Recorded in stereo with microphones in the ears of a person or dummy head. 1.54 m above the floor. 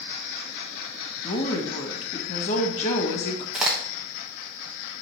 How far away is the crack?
About 1.0 m.